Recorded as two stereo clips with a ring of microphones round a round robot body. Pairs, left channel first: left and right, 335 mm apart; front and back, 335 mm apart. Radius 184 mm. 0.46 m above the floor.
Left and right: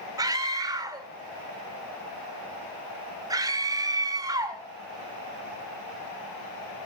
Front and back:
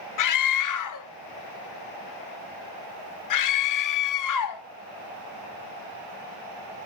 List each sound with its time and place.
0.2 s a scream: 10° right, 1.2 m